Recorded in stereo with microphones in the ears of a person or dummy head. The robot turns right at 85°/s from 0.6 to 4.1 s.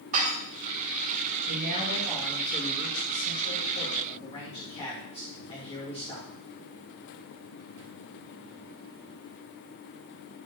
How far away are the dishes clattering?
About 3.5 m.